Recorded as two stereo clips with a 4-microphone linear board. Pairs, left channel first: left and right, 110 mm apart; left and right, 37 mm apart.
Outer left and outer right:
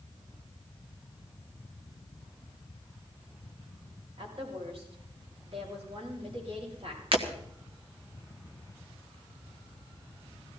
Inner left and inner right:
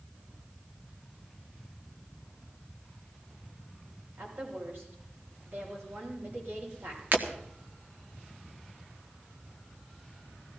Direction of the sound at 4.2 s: 65° right (ahead or behind).